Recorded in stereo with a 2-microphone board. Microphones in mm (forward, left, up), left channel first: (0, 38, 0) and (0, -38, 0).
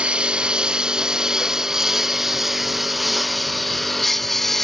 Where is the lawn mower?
15° right (ahead or behind); by 4.6 s 5° left (ahead or behind).